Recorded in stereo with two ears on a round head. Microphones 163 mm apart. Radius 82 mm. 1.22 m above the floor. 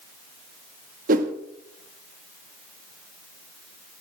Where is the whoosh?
45° right (ahead or behind), 0.8 m.